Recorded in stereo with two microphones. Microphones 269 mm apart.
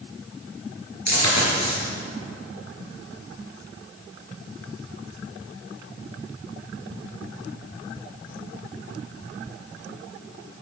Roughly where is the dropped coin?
Left.